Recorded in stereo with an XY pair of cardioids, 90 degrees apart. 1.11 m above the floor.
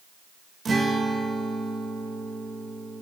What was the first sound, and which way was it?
A guitar, 45° right.